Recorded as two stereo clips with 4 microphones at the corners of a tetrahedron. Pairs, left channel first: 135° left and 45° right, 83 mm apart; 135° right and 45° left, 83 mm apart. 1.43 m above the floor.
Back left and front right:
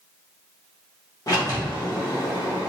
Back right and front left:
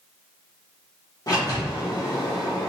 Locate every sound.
1.3 s a sliding door: straight behind, 0.8 m